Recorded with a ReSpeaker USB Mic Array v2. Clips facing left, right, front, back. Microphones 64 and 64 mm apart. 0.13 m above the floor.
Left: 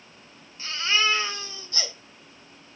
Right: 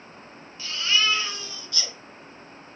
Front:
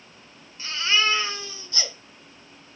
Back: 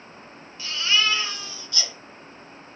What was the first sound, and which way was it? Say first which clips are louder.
A baby crying: even, even; 45° left.